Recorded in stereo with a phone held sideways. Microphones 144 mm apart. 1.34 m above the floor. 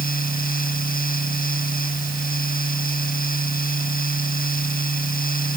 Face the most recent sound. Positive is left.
turn(degrees=90)